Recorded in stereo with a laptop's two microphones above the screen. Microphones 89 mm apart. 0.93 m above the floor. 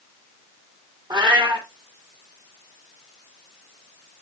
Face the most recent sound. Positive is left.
turn(degrees=-55)  # may be behind; listen again after turning